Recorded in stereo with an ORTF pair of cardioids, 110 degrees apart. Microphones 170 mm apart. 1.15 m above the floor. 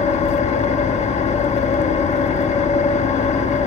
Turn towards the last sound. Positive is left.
turn(degrees=40)